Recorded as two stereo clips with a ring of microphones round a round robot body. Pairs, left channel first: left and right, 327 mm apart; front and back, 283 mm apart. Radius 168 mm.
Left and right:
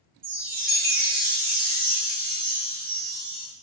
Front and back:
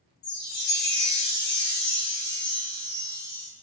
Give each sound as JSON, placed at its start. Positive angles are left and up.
{"t": 0.2, "sound": "a chime", "azimuth_deg": -55, "distance_m": 0.8}